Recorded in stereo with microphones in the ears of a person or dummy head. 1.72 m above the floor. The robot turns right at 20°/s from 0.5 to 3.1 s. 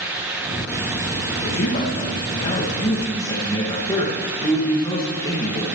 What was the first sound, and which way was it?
A man speaking, 120° left.